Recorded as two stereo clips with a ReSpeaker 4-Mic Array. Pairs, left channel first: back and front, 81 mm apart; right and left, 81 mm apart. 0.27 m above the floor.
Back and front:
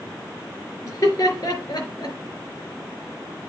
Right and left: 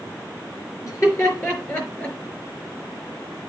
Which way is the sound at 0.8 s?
130° right.